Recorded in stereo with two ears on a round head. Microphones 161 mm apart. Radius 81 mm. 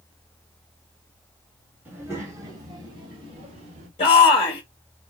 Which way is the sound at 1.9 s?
15° right (ahead or behind).